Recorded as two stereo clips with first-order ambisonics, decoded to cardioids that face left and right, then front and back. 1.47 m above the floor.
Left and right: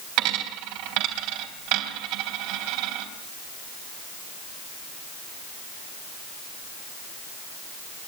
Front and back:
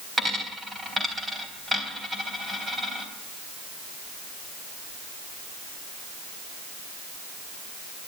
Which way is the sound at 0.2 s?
100° right.